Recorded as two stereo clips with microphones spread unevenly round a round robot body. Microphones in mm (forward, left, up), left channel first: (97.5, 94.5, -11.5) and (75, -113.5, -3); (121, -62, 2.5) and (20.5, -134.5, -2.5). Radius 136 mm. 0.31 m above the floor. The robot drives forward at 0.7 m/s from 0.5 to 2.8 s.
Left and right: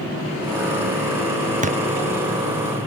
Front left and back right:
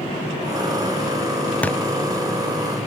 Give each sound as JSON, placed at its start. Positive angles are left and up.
{"t": 1.6, "sound": "a thud", "azimuth_deg": -40}